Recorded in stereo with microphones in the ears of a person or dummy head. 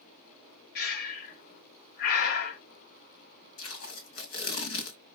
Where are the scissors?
No scissors in this recording.